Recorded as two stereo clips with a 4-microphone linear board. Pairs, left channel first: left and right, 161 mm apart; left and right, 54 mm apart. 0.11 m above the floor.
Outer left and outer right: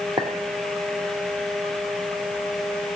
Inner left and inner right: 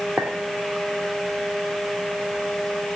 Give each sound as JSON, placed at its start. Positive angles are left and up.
{"t": 0.2, "sound": "a clink", "side_deg": -25, "distance_m": 2.5}